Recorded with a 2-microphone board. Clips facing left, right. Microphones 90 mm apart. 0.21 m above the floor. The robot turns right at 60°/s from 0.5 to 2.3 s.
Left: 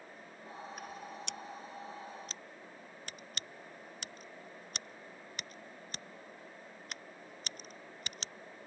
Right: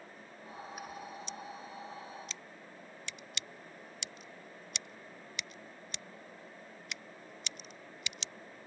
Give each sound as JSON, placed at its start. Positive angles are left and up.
{"t": 1.3, "sound": "scissors", "side_deg": 75}